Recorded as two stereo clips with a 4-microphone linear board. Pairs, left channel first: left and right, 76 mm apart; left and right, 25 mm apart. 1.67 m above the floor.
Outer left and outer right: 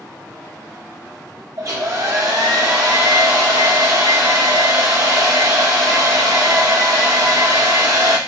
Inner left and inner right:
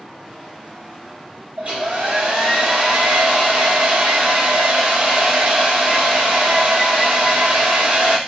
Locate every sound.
1.6 s a hair dryer: 45° right (ahead or behind), 1.3 m